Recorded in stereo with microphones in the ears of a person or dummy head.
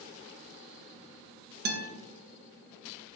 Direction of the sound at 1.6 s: 45° right (ahead or behind).